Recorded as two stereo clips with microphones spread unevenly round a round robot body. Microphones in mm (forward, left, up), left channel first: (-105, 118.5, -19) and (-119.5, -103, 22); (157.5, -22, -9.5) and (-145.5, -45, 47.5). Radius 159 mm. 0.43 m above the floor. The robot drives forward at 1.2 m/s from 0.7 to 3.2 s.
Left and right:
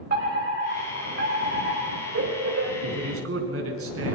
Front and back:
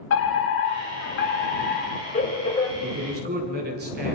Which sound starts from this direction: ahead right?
A fire alarm, at 0.1 s.